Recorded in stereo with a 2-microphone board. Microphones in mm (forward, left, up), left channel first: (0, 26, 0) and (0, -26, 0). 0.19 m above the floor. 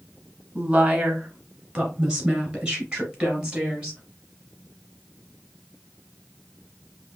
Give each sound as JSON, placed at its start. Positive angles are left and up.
{"t": 0.6, "sound": "a woman speaking", "side_deg": -25, "distance_m": 1.5}